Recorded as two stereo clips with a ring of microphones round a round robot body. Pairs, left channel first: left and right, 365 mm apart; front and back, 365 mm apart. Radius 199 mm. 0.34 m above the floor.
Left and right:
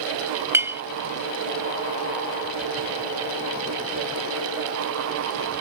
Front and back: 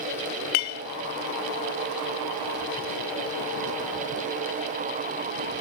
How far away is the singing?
I don't hear singing.